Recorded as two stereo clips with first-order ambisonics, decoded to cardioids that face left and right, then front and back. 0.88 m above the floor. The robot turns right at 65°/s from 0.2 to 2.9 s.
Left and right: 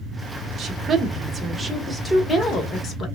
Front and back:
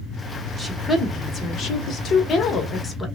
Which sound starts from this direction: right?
A woman speaking, at 0.6 s.